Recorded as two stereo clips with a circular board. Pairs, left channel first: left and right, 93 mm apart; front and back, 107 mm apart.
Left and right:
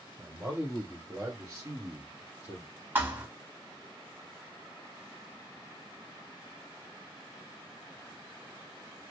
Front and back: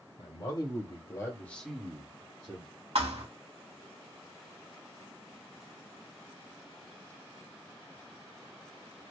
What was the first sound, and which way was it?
A man speaking, 25° right.